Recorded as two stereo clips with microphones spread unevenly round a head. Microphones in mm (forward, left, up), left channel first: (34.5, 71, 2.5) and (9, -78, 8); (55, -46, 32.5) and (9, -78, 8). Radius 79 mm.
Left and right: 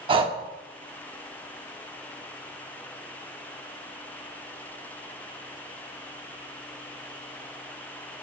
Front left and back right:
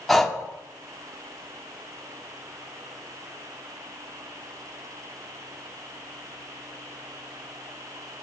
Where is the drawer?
No drawer in this recording.